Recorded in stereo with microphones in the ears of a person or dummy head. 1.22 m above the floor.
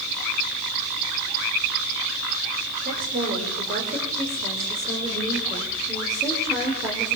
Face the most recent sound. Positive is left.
turn(degrees=-10)  # may be behind; listen again after turning